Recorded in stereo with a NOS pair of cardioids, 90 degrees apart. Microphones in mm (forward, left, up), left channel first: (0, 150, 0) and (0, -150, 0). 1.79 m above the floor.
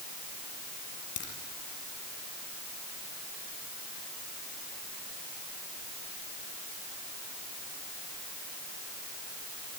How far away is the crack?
About 6.5 m.